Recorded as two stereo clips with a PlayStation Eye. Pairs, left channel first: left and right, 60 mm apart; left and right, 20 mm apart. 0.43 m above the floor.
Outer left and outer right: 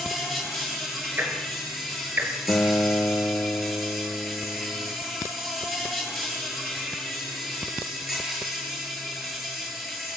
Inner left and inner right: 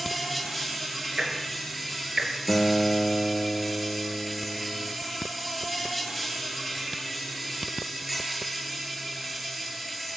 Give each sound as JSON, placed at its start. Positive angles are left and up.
{"t": 0.0, "sound": "an insect", "side_deg": 0, "distance_m": 9.5}
{"t": 1.2, "sound": "ticking", "side_deg": -35, "distance_m": 5.0}
{"t": 2.5, "sound": "a guitar", "side_deg": 30, "distance_m": 1.0}